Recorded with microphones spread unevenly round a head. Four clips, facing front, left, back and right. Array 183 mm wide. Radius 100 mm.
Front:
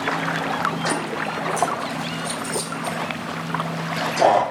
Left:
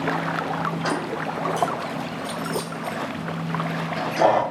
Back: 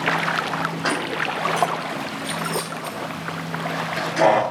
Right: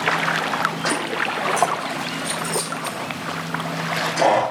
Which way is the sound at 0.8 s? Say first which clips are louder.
Right 2 dB, even; 165° right.